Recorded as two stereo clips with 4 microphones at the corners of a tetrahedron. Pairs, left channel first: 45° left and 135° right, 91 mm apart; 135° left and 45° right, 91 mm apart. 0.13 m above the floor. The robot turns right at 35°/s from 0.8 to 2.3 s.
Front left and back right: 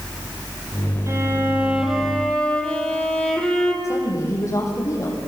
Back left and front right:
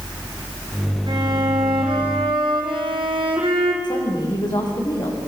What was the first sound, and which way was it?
A violin, 80° right.